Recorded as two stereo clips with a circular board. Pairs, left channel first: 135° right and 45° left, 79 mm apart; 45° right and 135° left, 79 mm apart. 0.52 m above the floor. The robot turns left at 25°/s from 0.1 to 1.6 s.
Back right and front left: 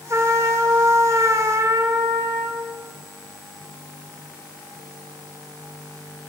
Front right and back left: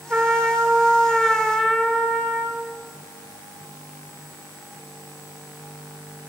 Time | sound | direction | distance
0.1 | a trumpet | 75° left | 1.7 m